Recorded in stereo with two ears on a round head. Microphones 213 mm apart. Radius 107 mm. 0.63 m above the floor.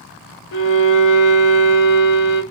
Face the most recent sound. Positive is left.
turn(degrees=60)  # may be behind; listen again after turning